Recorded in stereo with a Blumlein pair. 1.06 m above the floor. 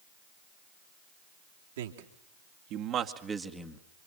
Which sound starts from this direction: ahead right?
A man speaking, at 1.8 s.